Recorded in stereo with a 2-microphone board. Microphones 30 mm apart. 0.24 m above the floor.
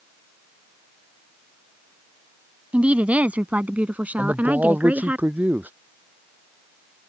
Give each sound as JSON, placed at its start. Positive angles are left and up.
{"t": 2.7, "sound": "a woman speaking", "side_deg": -50}
{"t": 4.2, "sound": "a man speaking", "side_deg": -80}